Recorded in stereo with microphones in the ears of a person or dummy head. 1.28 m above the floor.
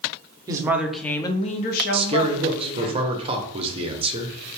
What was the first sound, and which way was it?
A woman speaking, 25° right (ahead or behind).